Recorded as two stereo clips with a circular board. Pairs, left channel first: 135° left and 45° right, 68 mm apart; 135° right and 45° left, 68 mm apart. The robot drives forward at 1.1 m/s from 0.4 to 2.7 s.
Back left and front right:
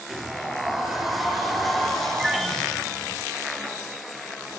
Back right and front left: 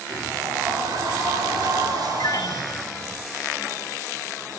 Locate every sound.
0.1 s a sliding door: 40° left, 7.5 m; by 3.2 s 55° left, 6 m
2.2 s a piano: 130° right, 2.0 m; by 2.8 s 140° right, 2.5 m